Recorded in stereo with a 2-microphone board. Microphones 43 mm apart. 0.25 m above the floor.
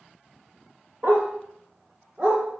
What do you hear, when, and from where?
1.0 s a dog barking: 60° right (ahead or behind), 1.8 m; by 2.4 s 35° right (ahead or behind), 2.5 m